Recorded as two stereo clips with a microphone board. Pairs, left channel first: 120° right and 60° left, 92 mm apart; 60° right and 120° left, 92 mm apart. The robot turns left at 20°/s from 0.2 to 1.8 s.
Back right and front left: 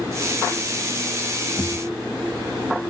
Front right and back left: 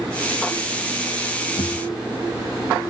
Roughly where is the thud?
Ahead right.